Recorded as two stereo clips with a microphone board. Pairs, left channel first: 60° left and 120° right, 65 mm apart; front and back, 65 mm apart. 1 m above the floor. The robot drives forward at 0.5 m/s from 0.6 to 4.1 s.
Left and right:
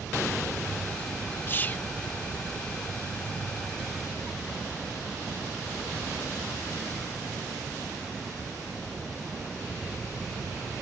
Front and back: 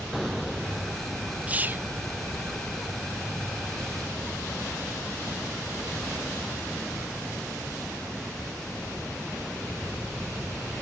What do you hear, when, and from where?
1.5 s whispering: 115° left; by 1.9 s 130° left